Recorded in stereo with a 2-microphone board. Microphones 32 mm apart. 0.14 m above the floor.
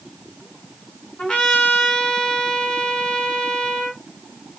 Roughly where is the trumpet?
Left.